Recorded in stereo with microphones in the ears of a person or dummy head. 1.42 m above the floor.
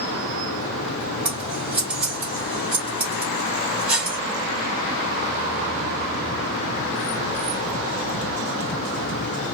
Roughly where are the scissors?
Centre.